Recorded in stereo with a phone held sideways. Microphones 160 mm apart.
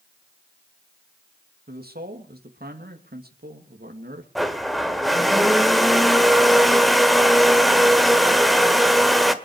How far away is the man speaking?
About 2.5 m.